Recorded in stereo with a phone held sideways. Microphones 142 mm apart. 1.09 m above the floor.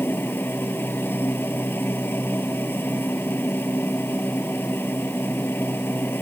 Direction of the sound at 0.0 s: 15° left (ahead or behind).